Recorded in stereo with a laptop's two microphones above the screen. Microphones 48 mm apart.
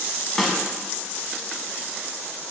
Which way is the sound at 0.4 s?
Centre (ahead or behind).